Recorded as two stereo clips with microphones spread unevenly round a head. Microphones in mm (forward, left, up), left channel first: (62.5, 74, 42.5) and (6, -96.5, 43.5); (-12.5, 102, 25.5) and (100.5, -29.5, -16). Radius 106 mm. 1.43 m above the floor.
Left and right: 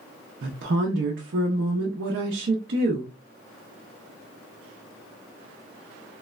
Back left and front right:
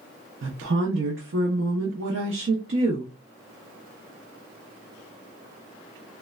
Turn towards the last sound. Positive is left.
turn(degrees=-85)